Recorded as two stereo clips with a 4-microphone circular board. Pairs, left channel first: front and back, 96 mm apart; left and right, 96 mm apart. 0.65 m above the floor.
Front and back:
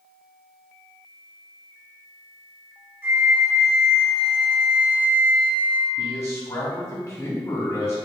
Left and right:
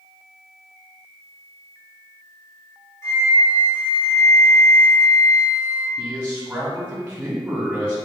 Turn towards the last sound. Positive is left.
turn(degrees=-30)